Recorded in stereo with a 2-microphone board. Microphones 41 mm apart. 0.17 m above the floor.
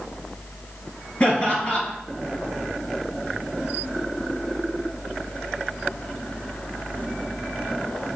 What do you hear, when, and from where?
1.2 s laughter: 20° left (ahead or behind), 2.5 m